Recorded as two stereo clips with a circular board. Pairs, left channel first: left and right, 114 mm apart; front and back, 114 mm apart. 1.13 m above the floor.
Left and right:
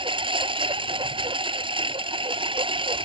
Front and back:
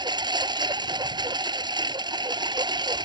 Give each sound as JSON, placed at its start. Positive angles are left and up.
{"t": 0.0, "sound": "a lawn mower", "azimuth_deg": -130}